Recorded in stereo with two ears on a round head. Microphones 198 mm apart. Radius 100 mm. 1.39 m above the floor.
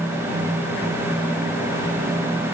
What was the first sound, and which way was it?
Only background noise.